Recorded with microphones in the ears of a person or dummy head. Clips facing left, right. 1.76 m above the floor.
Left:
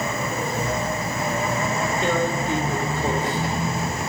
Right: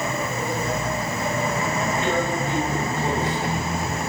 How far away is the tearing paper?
About 1.5 m.